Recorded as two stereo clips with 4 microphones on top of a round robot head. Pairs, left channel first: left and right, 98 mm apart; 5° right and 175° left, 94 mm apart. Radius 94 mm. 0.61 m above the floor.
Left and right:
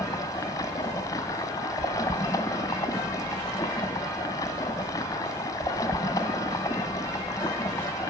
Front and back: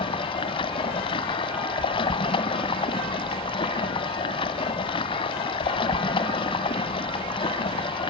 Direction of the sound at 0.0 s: 25° left.